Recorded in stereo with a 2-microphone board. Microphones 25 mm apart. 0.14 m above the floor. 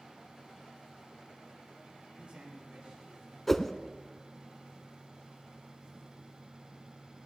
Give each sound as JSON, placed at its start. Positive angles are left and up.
{"t": 2.2, "sound": "a man speaking", "side_deg": -50, "distance_m": 7.5}
{"t": 3.5, "sound": "a whoosh", "side_deg": 10, "distance_m": 0.5}